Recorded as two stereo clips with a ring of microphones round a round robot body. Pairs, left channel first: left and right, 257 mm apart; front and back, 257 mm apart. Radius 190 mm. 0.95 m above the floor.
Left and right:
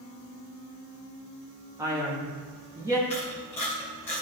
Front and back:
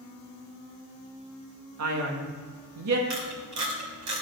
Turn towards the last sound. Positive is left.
turn(degrees=175)